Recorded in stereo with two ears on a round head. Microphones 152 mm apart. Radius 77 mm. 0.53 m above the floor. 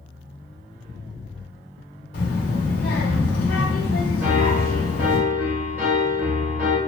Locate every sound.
2.1 s a child speaking: 60° left (ahead or behind), 1.1 m
4.2 s a piano: 10° right (ahead or behind), 0.9 m